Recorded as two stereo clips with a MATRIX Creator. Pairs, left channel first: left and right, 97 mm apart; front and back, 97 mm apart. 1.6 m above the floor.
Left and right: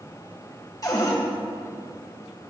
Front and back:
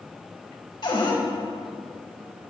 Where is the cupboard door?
40° left, 1.9 m.